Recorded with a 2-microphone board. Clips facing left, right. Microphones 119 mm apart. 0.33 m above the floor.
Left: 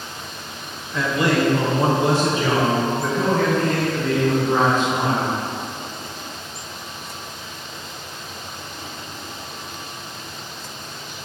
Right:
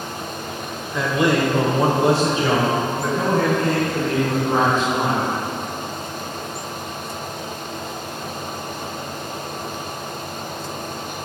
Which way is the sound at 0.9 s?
20° right (ahead or behind).